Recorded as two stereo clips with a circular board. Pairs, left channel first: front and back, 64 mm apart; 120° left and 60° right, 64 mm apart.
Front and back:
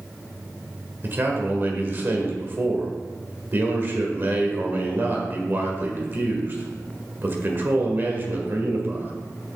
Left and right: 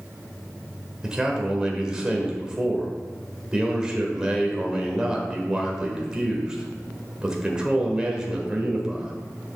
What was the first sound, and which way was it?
A man speaking, 135° right.